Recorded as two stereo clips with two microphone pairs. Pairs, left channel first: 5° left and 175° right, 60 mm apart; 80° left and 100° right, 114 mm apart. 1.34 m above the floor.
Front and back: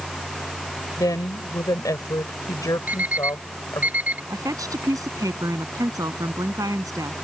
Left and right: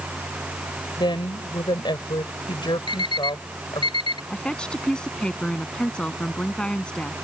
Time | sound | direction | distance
1.0 | a woman speaking | 35° left | ?
2.9 | an alarm clock | 125° left | ?
4.3 | a woman speaking | 165° left | ?